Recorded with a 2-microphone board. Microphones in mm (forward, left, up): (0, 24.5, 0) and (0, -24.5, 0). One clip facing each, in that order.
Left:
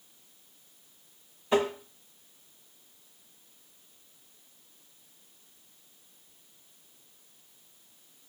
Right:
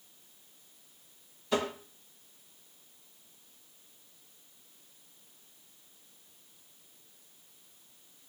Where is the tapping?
25° left (ahead or behind), 1.6 m.